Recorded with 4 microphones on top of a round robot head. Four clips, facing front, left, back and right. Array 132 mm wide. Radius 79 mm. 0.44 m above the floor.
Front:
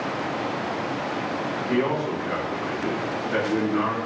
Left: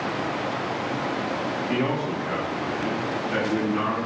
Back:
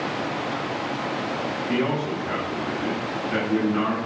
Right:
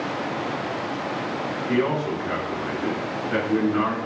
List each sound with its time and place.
1.7 s a man speaking: 80° right, 1.3 m